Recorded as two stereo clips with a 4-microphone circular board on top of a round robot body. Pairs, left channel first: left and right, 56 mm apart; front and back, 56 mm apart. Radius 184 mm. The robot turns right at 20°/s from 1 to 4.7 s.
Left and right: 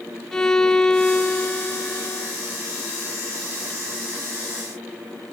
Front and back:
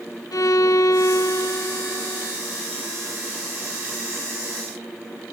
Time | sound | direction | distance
0.3 | a violin | 5° left | 0.8 m